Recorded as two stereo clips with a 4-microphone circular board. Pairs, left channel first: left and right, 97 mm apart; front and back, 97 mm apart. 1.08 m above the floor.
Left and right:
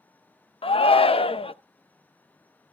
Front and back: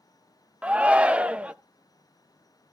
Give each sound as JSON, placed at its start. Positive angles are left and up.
{"t": 0.6, "sound": "a shout", "azimuth_deg": 100, "distance_m": 0.7}